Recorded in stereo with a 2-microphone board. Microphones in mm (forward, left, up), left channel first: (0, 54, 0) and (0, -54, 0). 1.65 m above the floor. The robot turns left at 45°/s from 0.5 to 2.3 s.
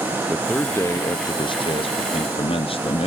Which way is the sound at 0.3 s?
165° left.